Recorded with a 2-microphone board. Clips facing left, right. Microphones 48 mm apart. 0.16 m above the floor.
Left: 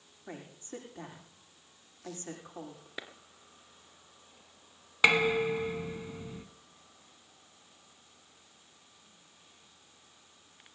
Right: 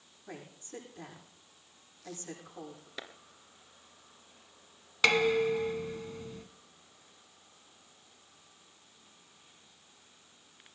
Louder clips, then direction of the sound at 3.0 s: Left 1 dB; 10° left (ahead or behind).